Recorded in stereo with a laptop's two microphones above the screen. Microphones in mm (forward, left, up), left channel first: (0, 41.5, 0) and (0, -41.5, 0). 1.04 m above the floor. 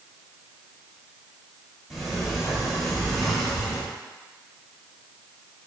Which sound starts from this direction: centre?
A sliding door, at 1.9 s.